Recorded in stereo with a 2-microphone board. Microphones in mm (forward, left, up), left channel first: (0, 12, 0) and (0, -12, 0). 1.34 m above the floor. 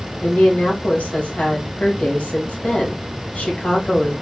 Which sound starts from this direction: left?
A woman speaking, at 0.2 s.